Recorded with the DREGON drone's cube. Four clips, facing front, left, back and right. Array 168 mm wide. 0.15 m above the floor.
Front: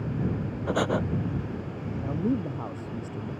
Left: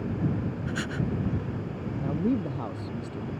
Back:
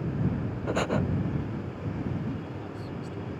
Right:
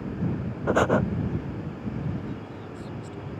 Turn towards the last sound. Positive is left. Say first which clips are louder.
# left 7 dB, front 10 dB
turn(degrees=45)